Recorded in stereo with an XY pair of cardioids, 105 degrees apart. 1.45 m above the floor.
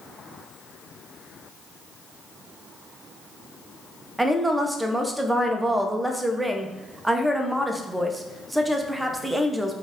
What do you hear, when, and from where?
4.2 s a woman speaking: 10° right, 0.7 m